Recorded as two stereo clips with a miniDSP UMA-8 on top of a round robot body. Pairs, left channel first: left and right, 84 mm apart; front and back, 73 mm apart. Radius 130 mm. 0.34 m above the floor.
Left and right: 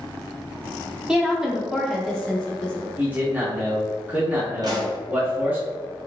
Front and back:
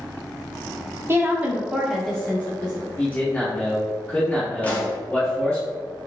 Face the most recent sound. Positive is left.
turn(degrees=-65)